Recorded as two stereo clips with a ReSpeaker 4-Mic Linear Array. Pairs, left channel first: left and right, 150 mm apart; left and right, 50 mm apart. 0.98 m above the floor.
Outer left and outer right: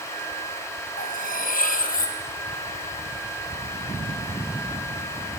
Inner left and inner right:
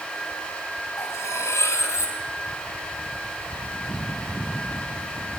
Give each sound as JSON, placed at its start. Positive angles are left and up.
{"t": 1.0, "sound": "cutlery clinking", "side_deg": 70, "distance_m": 3.0}